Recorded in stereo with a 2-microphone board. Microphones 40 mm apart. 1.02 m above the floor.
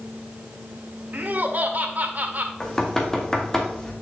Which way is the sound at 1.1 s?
45° right (ahead or behind).